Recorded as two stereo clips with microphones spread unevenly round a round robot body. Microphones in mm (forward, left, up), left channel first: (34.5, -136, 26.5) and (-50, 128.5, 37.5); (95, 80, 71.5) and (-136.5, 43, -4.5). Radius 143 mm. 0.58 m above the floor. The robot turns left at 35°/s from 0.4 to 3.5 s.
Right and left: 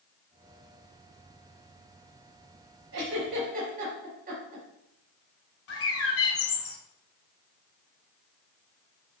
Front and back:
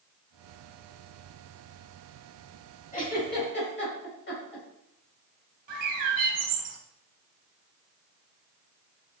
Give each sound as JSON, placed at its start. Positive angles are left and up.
{"t": 2.9, "sound": "a giggle", "azimuth_deg": 70, "distance_m": 4.5}
{"t": 5.7, "sound": "a bird", "azimuth_deg": -115, "distance_m": 1.4}